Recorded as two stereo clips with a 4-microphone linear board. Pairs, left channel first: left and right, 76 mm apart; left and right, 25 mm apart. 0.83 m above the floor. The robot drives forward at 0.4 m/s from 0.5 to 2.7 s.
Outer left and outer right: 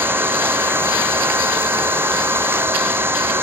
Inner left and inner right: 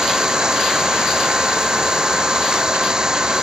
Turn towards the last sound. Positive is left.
turn(degrees=-30)  # may be behind; listen again after turning